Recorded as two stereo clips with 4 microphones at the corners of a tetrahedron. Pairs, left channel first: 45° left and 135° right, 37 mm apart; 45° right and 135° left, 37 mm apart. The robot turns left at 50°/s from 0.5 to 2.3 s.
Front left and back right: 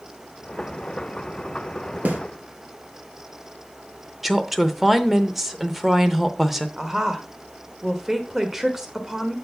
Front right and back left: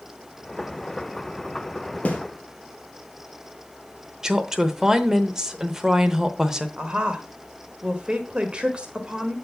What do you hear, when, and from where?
2.0 s a snare drum: 95° right, 1.7 m; by 2.2 s 100° right, 1.7 m
4.2 s a woman speaking: 160° left, 0.8 m
6.8 s a woman speaking: 160° left, 1.3 m